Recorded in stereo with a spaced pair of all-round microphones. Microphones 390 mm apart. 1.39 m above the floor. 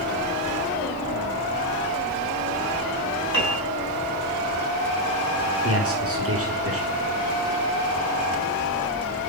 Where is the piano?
65° right (ahead or behind), 8 m.